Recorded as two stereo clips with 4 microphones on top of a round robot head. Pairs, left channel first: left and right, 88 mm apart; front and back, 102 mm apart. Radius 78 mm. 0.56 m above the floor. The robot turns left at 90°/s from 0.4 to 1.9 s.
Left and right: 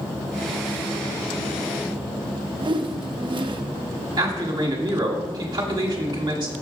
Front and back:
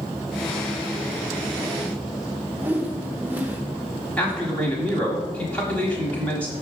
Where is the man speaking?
75° right, 1.5 m.